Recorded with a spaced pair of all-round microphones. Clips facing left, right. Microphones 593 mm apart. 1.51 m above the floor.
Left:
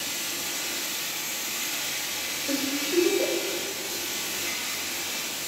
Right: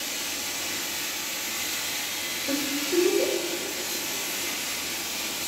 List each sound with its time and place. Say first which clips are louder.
2.5 s a giggle: even; 50° right (ahead or behind), 1.9 m